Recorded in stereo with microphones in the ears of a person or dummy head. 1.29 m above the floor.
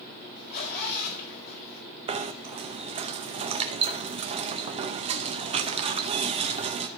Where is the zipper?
45° left (ahead or behind), 5 m.